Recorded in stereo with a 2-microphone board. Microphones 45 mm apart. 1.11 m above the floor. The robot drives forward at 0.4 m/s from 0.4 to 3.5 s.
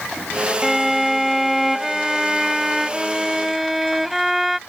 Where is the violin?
10° right (ahead or behind); by 4.6 s 5° right (ahead or behind).